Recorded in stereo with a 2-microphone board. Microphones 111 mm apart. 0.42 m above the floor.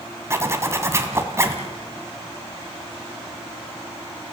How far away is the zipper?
About 2 m.